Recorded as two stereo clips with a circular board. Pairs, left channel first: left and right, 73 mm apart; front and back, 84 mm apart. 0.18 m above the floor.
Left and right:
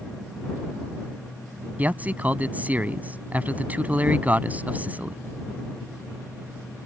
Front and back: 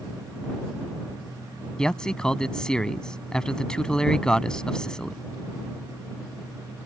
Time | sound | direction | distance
1.8 | a man speaking | 70° right | ?